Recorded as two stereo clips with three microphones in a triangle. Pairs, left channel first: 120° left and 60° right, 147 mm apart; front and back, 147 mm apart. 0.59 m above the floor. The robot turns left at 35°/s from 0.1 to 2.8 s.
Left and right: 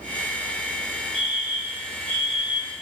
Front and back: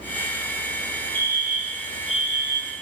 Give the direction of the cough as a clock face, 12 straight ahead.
No cough in this recording.